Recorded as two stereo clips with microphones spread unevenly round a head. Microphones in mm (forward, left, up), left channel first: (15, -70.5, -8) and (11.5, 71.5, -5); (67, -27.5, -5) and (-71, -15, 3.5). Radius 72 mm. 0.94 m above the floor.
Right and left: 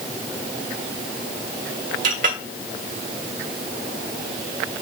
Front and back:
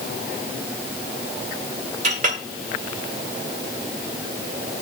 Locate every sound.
2.0 s a clink: 130° left, 1.6 m